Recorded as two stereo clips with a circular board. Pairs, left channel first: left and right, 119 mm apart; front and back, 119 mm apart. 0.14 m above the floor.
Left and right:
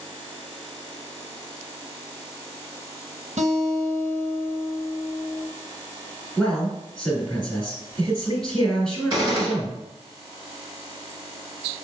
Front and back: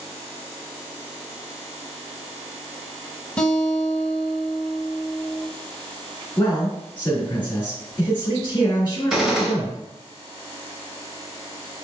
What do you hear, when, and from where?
3.4 s a guitar: 80° right, 1.0 m
6.4 s a man speaking: 5° left, 1.7 m
9.1 s a gunshot: 100° right, 1.6 m